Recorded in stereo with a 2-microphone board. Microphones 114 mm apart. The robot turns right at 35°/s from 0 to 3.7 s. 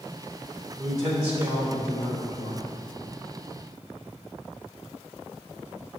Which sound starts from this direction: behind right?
A man speaking, at 0.8 s.